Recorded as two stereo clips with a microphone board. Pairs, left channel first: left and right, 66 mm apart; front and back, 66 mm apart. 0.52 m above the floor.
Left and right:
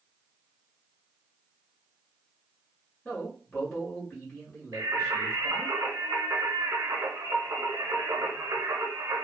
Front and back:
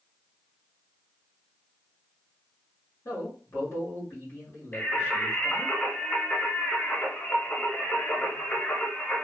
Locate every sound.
3.0 s a man speaking: 25° left, 1.4 m
4.7 s singing: 70° right, 0.8 m